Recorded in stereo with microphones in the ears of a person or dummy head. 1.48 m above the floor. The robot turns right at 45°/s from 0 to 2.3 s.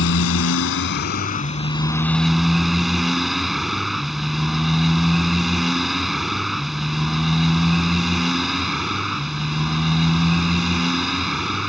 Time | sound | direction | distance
0.0 | a motorcycle | 75° left | ?